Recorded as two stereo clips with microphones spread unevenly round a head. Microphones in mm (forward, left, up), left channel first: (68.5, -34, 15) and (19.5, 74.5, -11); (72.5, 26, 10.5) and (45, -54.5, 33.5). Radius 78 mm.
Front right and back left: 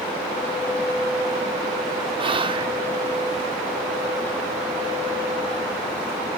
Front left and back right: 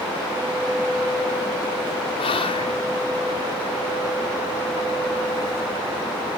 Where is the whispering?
70° left, 4 m.